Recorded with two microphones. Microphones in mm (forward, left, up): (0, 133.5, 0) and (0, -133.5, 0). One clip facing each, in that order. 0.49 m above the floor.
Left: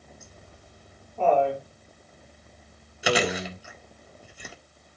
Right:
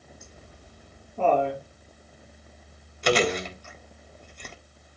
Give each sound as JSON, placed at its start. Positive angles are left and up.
{"t": 0.2, "sound": "laughter", "side_deg": -40, "distance_m": 5.5}
{"t": 3.0, "sound": "chewing", "side_deg": 5, "distance_m": 1.4}